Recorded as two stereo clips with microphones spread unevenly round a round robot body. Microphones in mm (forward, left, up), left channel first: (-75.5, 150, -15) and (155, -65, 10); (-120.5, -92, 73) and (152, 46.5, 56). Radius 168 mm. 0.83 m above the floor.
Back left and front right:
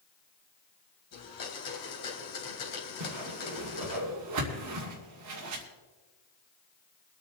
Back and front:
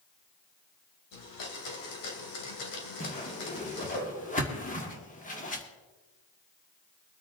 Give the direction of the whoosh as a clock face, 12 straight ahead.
3 o'clock.